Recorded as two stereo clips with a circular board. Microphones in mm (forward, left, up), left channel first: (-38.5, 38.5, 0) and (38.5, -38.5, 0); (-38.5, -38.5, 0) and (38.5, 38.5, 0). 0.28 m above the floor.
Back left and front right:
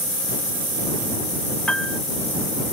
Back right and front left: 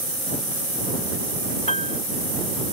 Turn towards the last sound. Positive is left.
turn(degrees=-145)